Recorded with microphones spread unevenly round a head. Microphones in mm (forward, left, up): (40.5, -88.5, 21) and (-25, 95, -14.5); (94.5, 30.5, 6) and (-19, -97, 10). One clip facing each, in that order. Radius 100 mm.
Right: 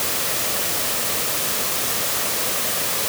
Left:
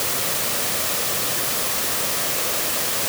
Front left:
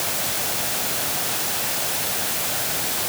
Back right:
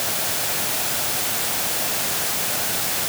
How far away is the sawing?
No sawing in this recording.